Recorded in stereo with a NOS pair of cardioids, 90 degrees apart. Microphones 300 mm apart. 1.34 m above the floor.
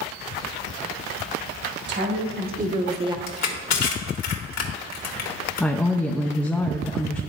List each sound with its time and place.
1.9 s a woman speaking: 40° right, 1.6 m; by 3.2 s 15° right, 0.8 m
3.3 s crushing: 60° left, 1.4 m
5.6 s a woman speaking: 5° left, 0.5 m